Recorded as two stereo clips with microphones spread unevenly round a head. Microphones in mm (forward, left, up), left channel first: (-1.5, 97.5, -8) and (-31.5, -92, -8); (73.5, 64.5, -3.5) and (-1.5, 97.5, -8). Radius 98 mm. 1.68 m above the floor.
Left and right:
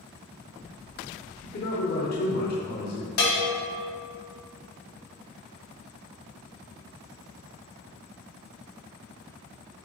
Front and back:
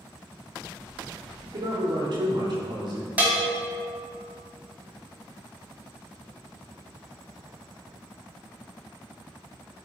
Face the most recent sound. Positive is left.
turn(degrees=85)